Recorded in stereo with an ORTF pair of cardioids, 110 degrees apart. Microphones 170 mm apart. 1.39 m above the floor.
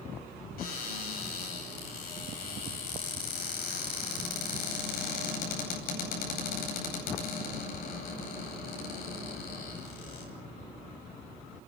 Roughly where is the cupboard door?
Ahead left.